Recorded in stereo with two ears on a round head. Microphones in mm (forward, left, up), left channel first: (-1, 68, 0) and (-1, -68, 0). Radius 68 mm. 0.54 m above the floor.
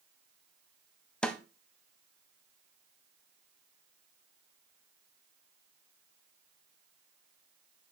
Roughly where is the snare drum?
Centre.